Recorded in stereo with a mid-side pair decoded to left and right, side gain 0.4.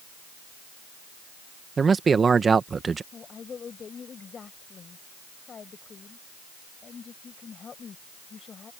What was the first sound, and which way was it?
A man speaking, 40° right.